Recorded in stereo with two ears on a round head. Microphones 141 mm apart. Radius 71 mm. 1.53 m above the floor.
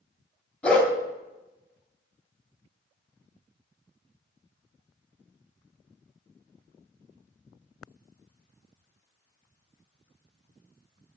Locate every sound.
0.6 s a dog barking: 5° left (ahead or behind), 2.0 m